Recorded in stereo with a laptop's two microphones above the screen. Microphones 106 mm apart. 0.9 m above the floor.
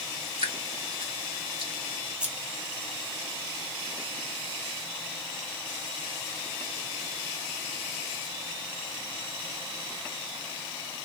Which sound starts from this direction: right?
Dripping, at 0.4 s.